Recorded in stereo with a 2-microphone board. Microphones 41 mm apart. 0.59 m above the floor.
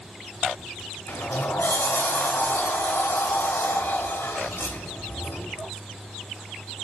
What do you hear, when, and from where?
1.1 s a sliding door: 80° left, 1.0 m